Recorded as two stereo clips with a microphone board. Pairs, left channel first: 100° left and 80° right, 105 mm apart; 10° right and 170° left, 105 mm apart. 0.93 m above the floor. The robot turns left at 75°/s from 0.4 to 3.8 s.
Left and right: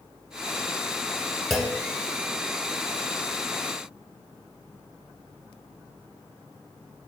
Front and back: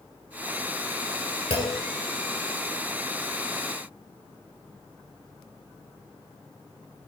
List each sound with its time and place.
1.5 s a clunk: 15° left, 1.6 m; by 1.8 s 10° right, 1.6 m